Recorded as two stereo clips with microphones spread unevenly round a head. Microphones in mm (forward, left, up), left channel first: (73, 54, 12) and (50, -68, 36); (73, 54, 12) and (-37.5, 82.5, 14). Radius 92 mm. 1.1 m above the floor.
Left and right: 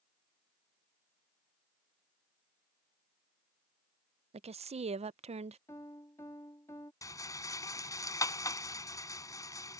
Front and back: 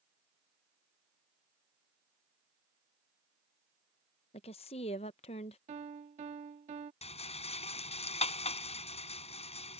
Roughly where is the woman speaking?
Ahead right.